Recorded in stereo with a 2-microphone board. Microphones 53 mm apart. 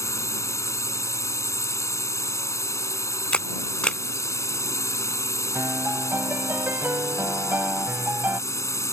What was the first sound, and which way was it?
A drone, 70° left (ahead or behind).